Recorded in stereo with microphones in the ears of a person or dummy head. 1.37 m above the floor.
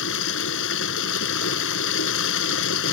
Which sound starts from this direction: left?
Running water, at 0.0 s.